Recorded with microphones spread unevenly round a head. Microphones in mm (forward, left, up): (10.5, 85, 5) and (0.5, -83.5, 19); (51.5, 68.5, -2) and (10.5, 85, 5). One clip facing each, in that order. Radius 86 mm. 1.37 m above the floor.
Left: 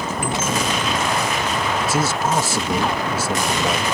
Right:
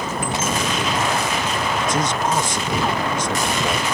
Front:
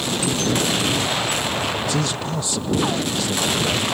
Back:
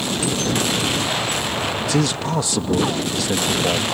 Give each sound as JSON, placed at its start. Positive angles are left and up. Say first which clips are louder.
{"t": 1.8, "sound": "a man speaking", "louder": "even, back 3 dB", "azimuth_deg": 170}